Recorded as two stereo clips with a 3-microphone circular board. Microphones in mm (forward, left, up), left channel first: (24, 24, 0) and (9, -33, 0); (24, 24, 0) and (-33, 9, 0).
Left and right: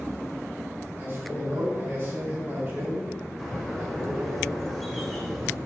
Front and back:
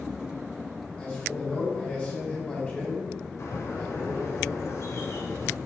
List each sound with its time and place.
1.0 s a man speaking: 55° right, 3 m
3.4 s a bird: 10° right, 2 m